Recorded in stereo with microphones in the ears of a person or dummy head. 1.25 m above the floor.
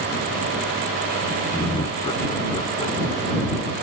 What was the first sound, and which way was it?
Laughter, 25° left (ahead or behind).